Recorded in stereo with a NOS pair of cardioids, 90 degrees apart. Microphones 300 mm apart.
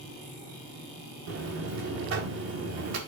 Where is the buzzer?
60° right, 1.9 m.